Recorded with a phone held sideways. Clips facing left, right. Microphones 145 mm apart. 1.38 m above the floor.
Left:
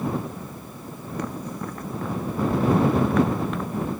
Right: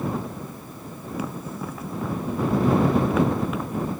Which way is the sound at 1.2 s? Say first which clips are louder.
Left 1 dB; 5° right (ahead or behind).